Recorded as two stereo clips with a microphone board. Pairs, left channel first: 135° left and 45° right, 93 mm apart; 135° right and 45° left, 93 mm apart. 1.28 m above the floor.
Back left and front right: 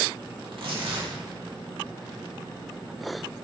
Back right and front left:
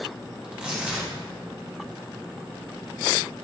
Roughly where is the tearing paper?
Ahead right.